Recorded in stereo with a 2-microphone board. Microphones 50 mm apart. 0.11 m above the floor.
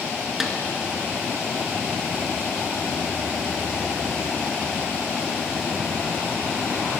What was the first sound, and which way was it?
A snare drum, 5° right (ahead or behind).